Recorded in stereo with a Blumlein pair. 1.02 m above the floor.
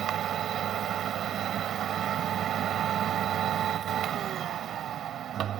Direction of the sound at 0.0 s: 30° right.